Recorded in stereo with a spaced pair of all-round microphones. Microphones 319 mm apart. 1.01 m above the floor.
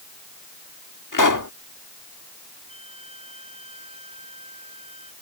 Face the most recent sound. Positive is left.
turn(degrees=-20)  # may be behind; listen again after turning